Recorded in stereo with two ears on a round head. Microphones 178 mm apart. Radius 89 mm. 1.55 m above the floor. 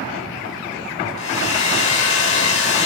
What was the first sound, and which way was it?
A hair dryer, 65° left (ahead or behind).